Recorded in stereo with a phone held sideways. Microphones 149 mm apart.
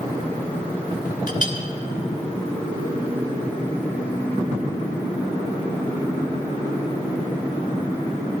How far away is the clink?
About 2.5 m.